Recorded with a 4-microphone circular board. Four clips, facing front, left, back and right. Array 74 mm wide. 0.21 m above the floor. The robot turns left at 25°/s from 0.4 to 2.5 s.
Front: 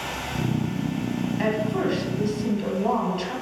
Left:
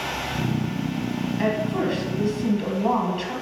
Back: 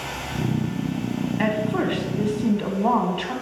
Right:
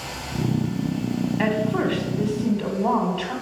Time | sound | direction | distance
1.4 | a woman speaking | 130° right | 1.2 m